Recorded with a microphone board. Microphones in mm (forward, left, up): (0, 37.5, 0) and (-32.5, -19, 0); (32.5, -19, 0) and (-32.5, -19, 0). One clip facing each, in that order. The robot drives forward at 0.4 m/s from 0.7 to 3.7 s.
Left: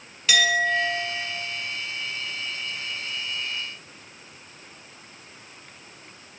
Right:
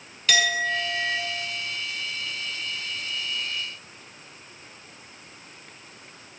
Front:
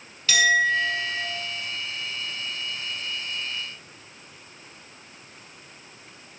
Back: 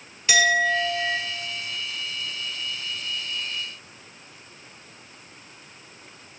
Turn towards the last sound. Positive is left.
turn(degrees=170)